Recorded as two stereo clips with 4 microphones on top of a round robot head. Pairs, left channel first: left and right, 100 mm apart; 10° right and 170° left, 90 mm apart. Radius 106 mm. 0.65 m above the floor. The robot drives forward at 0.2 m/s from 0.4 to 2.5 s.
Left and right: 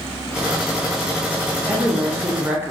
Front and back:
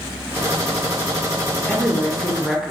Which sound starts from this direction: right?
A woman speaking, at 1.7 s.